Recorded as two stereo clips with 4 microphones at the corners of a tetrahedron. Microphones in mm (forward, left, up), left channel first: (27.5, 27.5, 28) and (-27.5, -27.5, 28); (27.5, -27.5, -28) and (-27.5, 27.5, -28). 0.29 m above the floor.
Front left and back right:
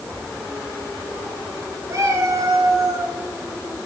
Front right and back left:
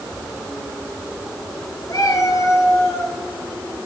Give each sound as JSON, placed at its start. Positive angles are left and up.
{"t": 1.9, "sound": "a cat meowing", "azimuth_deg": -85, "distance_m": 2.5}